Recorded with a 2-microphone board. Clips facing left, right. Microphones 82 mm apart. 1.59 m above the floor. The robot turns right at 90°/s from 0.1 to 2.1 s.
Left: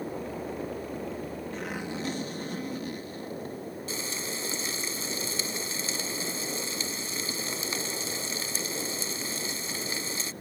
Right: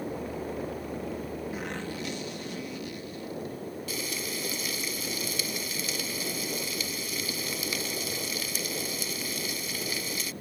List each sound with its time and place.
1.5 s a zipper: 10° right; by 3.6 s 40° left
3.9 s frying: 30° left (ahead or behind)